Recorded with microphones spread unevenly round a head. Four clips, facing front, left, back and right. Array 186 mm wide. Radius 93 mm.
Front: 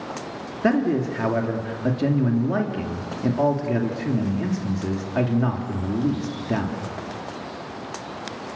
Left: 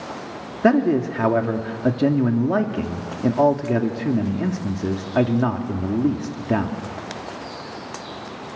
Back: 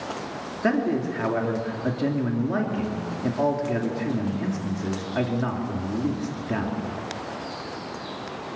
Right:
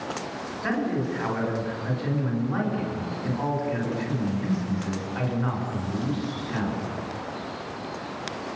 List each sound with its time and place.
0.6 s a man speaking: 80° left, 2.5 m